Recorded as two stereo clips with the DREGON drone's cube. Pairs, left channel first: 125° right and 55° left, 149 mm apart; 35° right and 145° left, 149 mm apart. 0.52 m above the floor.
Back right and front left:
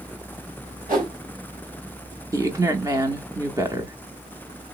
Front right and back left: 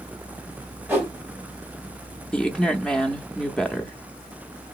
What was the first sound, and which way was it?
A whoosh, 70° left.